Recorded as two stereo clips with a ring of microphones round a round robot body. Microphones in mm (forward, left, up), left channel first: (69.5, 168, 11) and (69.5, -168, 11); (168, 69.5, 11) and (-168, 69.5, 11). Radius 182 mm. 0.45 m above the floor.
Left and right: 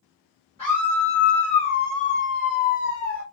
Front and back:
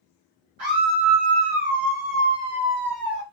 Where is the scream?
175° left, 1.9 m; by 3.2 s 50° left, 1.3 m.